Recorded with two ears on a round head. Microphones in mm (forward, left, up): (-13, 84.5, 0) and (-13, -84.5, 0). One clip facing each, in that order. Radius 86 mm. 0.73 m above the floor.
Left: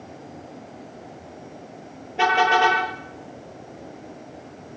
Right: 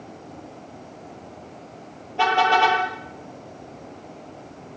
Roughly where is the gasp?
I don't hear a gasp.